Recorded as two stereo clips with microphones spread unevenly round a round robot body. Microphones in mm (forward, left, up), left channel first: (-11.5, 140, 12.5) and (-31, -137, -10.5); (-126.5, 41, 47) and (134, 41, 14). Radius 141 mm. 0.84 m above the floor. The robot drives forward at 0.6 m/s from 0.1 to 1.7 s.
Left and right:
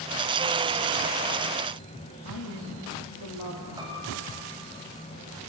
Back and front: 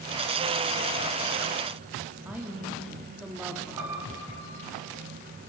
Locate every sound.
2.2 s a woman speaking: 85° left, 2 m
3.8 s a piano: 20° right, 3 m